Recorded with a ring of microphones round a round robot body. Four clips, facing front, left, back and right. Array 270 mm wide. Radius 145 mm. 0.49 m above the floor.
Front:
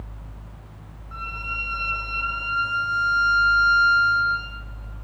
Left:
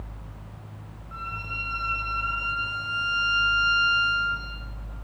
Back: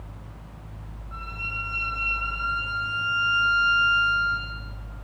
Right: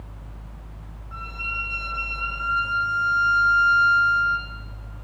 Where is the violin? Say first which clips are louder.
Right 1 dB, front 4 dB; 5° right, 6 m.